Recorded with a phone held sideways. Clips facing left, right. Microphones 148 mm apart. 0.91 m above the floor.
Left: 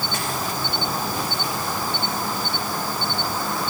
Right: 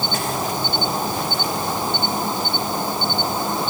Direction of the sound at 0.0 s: 20° right (ahead or behind).